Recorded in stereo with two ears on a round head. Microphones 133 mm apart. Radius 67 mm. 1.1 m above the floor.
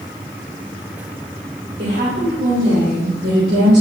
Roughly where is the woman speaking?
Right.